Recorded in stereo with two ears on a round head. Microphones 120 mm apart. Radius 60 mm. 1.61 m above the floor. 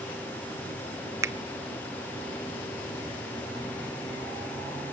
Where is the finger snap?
20° right (ahead or behind), 0.6 m.